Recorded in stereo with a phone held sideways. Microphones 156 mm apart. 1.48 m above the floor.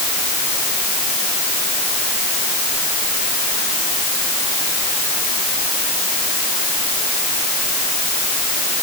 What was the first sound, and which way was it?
Only background noise.